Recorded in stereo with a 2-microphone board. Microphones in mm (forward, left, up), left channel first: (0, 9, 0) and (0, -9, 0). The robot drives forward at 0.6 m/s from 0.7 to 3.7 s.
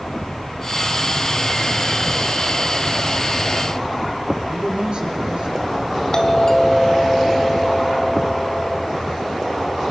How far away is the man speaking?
About 5 m.